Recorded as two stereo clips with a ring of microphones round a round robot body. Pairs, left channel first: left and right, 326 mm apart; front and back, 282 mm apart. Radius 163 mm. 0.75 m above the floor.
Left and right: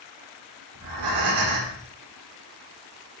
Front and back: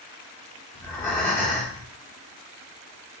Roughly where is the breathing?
Right.